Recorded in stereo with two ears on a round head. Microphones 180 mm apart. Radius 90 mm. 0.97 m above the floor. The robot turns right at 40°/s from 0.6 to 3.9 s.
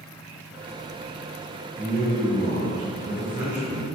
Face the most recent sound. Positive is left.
turn(degrees=-55)